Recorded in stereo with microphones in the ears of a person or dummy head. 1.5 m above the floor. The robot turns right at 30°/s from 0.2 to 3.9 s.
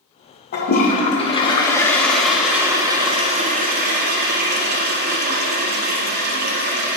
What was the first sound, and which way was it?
A toilet flushing, 125° left.